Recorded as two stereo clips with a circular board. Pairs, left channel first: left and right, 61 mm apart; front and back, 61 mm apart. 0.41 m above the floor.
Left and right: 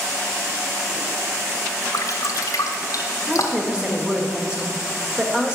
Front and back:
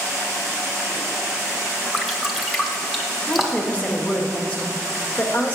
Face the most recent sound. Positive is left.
turn(degrees=-30)